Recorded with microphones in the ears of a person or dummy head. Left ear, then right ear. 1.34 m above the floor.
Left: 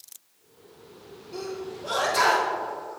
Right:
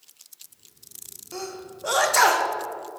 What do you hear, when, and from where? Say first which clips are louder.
1.3 s a sneeze: left 1 dB; 65° right (ahead or behind), 1.2 m